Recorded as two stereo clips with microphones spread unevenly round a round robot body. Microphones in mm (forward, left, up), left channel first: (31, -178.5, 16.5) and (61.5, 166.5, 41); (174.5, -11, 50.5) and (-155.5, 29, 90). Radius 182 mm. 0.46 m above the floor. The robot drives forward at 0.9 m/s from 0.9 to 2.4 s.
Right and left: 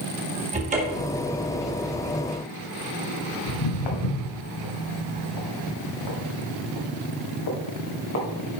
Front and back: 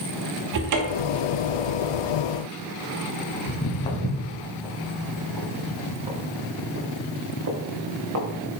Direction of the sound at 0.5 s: 155° left.